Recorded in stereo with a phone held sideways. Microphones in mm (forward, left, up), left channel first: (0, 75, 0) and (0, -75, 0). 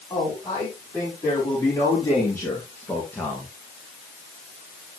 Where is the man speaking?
25° left (ahead or behind), 5 m; by 3.5 s 10° left (ahead or behind), 2 m.